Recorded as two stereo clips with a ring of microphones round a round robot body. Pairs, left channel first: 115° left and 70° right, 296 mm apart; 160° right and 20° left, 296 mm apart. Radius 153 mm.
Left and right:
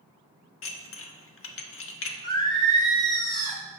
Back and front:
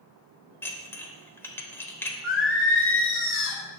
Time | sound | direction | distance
0.6 | dishes clattering | 125° left | 0.7 m
2.2 | singing | 175° right | 1.1 m